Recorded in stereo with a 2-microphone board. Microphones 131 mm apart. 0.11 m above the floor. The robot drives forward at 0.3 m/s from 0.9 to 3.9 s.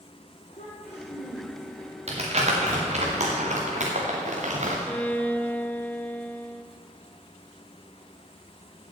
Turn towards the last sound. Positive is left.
turn(degrees=10)  # may be behind; listen again after turning